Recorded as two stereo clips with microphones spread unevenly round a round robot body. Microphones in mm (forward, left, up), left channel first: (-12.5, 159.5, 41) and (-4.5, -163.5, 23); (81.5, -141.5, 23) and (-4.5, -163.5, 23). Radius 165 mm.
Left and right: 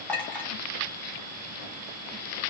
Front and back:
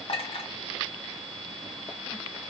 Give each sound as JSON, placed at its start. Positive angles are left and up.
{"t": 0.1, "sound": "a clink", "azimuth_deg": 5, "distance_m": 2.0}